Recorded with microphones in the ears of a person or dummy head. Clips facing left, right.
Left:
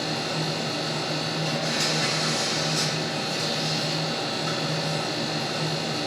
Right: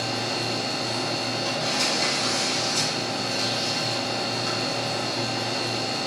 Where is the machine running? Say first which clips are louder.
Even; 25° right (ahead or behind), 1.5 m.